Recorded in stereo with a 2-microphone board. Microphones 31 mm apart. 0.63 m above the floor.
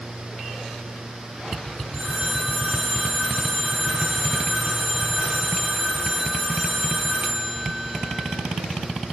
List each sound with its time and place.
1.9 s a phone ringing: 50° right (ahead or behind), 7 m